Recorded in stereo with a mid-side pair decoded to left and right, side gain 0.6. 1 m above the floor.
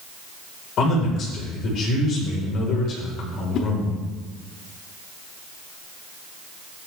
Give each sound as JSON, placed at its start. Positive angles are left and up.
{"t": 0.8, "sound": "a man speaking", "azimuth_deg": 55, "distance_m": 4.0}
{"t": 3.5, "sound": "a whoosh", "azimuth_deg": 55, "distance_m": 1.2}